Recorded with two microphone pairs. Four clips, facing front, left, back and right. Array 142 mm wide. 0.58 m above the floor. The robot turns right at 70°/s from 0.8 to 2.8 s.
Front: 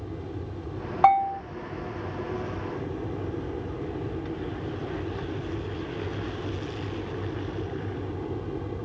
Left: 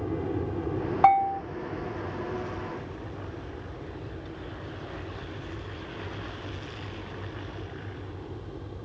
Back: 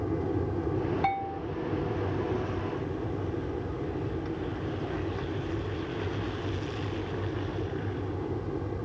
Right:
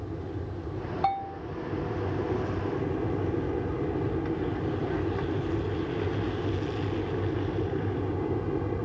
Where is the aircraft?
135° left; by 8.8 s 85° right.